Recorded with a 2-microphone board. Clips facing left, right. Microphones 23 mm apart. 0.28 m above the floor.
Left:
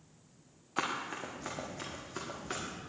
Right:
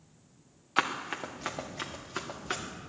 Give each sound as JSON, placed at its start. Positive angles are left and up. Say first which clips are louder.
{"t": 0.8, "sound": "running footsteps", "louder": "right 5 dB", "side_deg": -45, "distance_m": 1.8}